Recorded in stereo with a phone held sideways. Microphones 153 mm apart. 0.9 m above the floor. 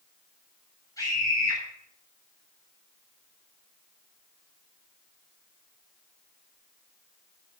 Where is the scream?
25° left (ahead or behind), 3.5 m.